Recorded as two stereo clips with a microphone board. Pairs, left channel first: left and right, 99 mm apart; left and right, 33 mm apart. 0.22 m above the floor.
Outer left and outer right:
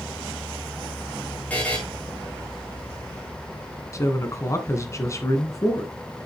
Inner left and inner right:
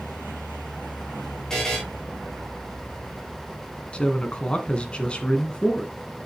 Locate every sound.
1.5 s a buzzer: 15° left (ahead or behind), 3.5 m
3.9 s a man speaking: 30° left (ahead or behind), 2.0 m